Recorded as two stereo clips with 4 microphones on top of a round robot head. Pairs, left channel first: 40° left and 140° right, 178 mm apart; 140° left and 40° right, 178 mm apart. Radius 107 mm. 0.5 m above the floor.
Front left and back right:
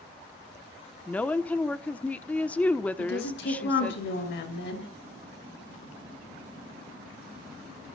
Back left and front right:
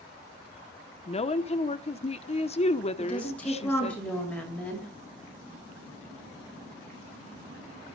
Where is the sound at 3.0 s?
55° left, 7.5 m.